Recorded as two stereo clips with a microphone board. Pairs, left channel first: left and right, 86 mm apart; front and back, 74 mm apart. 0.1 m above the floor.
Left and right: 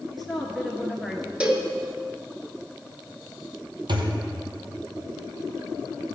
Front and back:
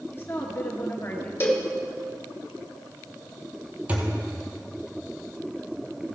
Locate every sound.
0.1 s a woman speaking: straight ahead, 1.4 m
1.4 s a cowbell: 25° right, 1.3 m
3.9 s a thud: 110° right, 1.2 m